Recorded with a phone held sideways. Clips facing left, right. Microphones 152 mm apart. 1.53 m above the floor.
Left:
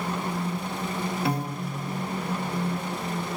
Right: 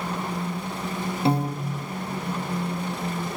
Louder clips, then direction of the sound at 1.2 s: Right 5 dB; 30° right (ahead or behind).